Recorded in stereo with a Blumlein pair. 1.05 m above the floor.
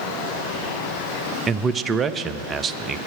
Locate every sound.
1.5 s a man speaking: 20° right, 0.5 m